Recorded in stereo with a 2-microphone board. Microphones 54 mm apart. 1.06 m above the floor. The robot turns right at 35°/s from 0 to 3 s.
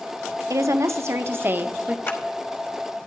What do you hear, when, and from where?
0.5 s a woman speaking: 80° right, 0.7 m; by 2.0 s 25° right, 0.7 m
2.1 s a clap: 45° left (ahead or behind), 1.3 m; by 2.2 s 50° left (ahead or behind), 1.3 m